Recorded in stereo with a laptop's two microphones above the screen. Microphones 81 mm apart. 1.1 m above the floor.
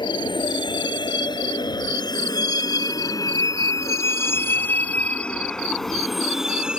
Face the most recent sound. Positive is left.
turn(degrees=-10)  # may be behind; listen again after turning